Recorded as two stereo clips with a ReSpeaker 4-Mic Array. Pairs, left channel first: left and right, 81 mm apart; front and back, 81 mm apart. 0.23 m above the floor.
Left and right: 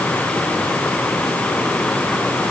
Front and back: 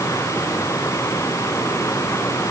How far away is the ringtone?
No ringtone in this recording.